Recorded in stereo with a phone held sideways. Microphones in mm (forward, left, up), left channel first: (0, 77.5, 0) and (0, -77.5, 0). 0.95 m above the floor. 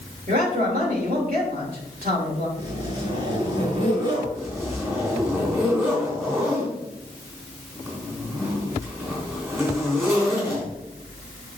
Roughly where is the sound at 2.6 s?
Right.